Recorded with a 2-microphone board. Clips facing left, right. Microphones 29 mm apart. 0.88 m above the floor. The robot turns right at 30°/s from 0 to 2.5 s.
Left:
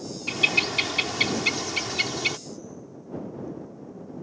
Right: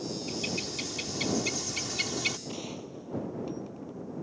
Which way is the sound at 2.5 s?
80° right.